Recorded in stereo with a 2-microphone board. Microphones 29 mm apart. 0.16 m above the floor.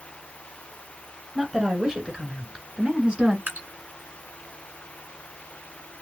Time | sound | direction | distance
1.4 | a woman speaking | 15° right (ahead or behind) | 1.6 m
3.5 | dripping | 80° right | 1.7 m